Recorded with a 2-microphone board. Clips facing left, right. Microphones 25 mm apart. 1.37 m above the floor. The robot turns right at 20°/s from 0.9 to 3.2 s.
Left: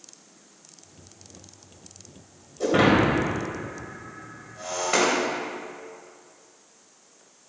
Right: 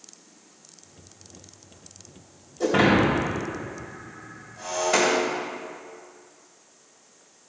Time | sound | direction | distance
2.6 | breaking glass | 5° left (ahead or behind) | 4 m